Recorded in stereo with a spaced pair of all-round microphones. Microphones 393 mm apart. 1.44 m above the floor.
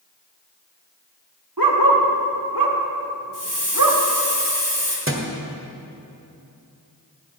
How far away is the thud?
About 1.7 m.